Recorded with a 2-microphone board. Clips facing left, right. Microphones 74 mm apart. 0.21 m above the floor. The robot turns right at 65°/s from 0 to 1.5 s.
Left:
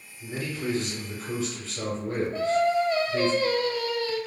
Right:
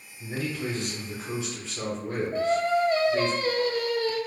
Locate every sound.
0.2 s a man speaking: 95° right, 1.5 m; by 3.3 s 10° right, 1.5 m
2.3 s singing: 40° right (ahead or behind), 0.7 m